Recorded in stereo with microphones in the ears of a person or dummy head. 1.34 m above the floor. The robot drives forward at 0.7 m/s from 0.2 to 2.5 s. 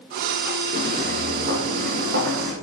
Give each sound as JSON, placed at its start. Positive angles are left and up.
{"t": 0.7, "sound": "footsteps", "side_deg": -50, "distance_m": 2.5}